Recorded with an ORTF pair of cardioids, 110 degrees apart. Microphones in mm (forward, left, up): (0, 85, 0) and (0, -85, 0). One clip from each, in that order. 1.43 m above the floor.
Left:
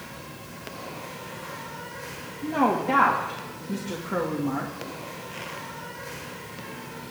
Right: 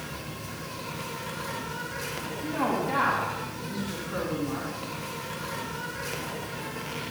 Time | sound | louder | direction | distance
0.0 | an insect | right 3 dB | 55° right | 6 m
2.4 | a woman speaking | left 5 dB | 65° left | 2.5 m